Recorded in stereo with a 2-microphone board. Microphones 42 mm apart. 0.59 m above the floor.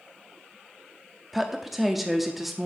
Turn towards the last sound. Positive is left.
turn(degrees=-5)  # may be behind; listen again after turning